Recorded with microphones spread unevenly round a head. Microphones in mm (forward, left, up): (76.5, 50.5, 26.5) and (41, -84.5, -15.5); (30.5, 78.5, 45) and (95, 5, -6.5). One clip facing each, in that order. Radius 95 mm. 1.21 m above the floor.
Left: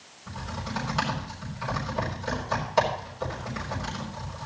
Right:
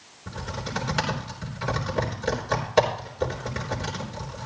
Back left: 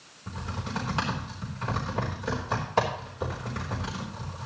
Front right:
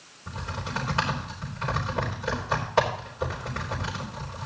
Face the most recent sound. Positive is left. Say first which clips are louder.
# right 2 dB, front right 1 dB
turn(degrees=-155)